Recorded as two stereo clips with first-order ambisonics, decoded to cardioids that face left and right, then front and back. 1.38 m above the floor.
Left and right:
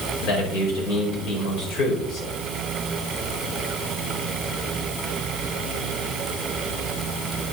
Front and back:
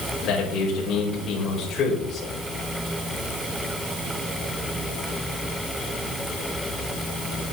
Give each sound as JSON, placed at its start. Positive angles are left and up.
{"t": 0.2, "sound": "a man speaking", "azimuth_deg": 50, "distance_m": 5.0}